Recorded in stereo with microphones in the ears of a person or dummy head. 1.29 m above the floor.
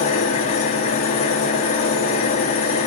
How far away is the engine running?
About 1.1 m.